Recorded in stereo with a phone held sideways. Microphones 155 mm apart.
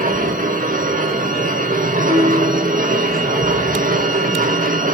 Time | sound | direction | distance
0.0 | a machine running | 60° right (ahead or behind) | 1.1 m
2.1 | a guitar | 60° right (ahead or behind) | 3 m